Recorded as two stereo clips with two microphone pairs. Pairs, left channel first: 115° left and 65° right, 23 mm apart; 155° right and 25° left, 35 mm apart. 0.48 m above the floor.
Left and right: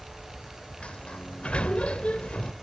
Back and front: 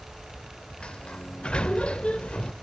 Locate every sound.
0.8 s a sliding door: 145° left, 0.6 m